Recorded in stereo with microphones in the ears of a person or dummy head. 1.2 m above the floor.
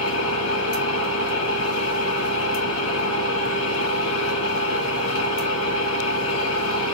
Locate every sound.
0.0 s an engine running: 80° left, 5 m